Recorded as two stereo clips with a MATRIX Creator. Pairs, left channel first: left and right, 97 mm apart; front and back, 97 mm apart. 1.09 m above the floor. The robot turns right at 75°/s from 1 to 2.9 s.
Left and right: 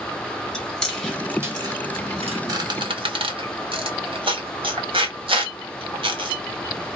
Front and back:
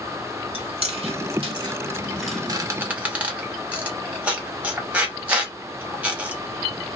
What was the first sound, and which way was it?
Chewing, 175° left.